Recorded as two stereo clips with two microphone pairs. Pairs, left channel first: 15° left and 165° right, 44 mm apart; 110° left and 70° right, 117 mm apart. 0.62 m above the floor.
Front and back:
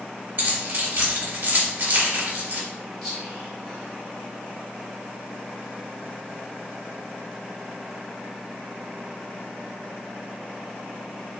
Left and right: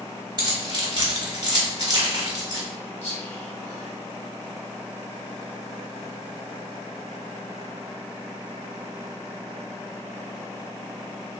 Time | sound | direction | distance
0.4 | keys jangling | 120° right | 1.1 m
3.0 | whispering | 105° left | 1.5 m